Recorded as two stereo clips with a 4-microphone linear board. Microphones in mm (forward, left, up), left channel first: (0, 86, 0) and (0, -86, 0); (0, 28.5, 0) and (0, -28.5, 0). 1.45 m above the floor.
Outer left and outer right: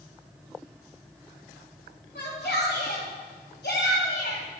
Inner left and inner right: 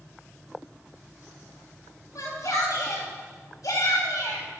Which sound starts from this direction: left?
A shout, at 2.1 s.